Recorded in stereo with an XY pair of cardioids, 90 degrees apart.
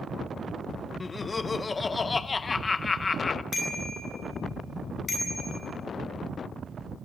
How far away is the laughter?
About 0.9 m.